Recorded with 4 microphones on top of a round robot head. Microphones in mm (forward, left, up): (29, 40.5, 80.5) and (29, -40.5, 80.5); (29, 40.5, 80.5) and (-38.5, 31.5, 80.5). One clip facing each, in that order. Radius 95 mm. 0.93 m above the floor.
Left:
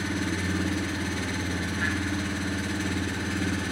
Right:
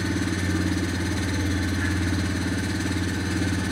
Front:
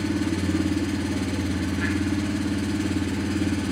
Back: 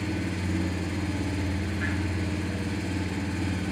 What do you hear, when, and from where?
0.0 s an engine running: 5° right, 3 m